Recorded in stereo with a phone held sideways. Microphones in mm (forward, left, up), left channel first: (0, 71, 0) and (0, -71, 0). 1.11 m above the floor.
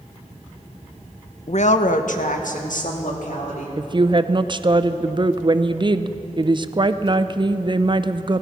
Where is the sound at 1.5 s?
50° left (ahead or behind), 0.6 m; by 3.7 s 70° left (ahead or behind), 3 m.